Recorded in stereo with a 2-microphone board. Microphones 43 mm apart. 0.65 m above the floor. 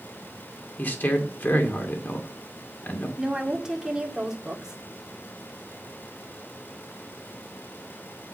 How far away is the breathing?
I don't hear breathing.